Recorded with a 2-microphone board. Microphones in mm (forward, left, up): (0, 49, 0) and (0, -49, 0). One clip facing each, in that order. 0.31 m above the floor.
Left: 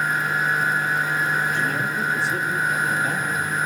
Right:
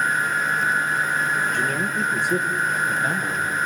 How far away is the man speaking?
About 7 m.